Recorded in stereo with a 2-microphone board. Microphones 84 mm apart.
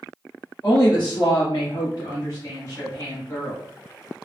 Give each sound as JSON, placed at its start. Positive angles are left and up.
{"t": 0.6, "sound": "a woman speaking", "side_deg": 40, "distance_m": 2.0}